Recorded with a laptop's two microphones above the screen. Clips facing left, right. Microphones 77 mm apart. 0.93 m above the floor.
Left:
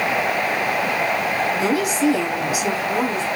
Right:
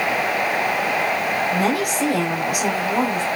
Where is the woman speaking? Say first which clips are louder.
Even; 55° right (ahead or behind), 7 m.